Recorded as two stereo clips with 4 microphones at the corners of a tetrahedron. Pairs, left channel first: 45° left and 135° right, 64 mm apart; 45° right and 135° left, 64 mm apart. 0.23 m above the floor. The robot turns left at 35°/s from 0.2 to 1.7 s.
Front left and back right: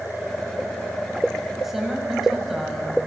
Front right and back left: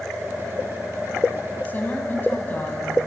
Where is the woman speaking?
50° right, 1.3 m; by 2.9 s 55° right, 1.3 m.